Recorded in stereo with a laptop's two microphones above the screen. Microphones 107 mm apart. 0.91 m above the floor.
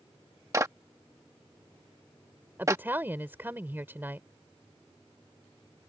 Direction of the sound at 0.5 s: 30° right (ahead or behind).